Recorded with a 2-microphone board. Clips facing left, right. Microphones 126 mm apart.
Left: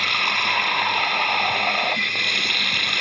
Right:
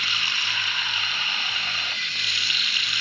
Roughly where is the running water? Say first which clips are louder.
Left 9 dB; left.